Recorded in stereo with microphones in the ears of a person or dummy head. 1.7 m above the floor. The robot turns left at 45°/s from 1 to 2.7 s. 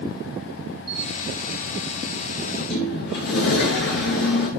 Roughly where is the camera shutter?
Right.